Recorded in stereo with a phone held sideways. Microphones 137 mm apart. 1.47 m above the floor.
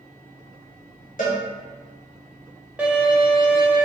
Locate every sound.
1.2 s a cowbell: 70° left (ahead or behind), 1.1 m
2.8 s a violin: 10° right (ahead or behind), 0.8 m